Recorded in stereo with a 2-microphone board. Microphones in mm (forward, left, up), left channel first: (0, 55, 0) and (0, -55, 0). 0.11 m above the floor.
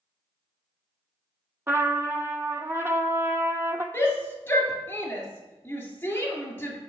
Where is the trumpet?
20° right (ahead or behind), 0.6 m.